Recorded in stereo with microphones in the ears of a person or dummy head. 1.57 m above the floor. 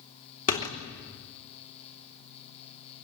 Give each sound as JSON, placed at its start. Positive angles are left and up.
{"t": 0.5, "sound": "a door slam", "side_deg": 35, "distance_m": 3.0}